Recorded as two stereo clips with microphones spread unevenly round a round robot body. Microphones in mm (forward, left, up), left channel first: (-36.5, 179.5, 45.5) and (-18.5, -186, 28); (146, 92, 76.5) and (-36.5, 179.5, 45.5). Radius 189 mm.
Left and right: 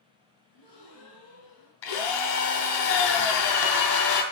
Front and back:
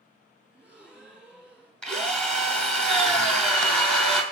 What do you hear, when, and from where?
0.5 s a gasp: 70° left, 6 m
1.8 s a drill: 65° left, 2.5 m